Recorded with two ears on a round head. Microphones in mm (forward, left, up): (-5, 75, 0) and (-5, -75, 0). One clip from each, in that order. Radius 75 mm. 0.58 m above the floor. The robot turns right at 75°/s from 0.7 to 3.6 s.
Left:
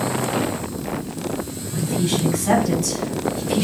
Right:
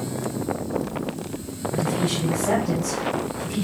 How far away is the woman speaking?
About 5.5 m.